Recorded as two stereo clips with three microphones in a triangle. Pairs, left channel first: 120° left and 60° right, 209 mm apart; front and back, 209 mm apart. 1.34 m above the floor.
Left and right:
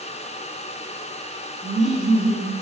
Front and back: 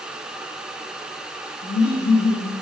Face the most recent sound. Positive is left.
turn(degrees=25)